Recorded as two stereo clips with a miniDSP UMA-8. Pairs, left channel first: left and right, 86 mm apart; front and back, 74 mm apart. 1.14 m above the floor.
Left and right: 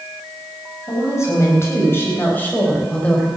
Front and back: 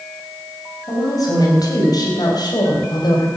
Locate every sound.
0.9 s a woman speaking: 35° left, 6 m; by 3.3 s 10° left, 4.5 m